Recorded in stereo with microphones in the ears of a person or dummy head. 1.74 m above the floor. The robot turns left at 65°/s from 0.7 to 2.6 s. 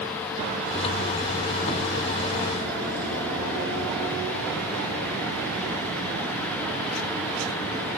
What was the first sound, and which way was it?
Only background noise.